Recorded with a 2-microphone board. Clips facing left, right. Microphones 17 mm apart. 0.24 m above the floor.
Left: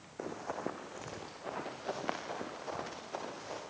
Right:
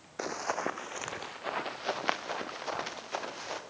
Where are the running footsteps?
75° right (ahead or behind), 0.7 m; by 3.6 s 40° right (ahead or behind), 3 m.